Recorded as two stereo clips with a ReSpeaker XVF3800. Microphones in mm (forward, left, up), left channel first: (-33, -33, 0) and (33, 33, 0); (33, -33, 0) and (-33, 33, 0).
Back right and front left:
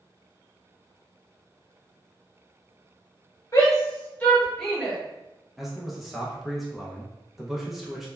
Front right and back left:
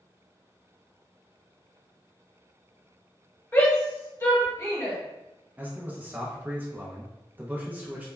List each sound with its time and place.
3.5 s a shout: 105° right, 1.2 m; by 5.0 s 30° right, 1.0 m
5.6 s a man speaking: 130° left, 0.5 m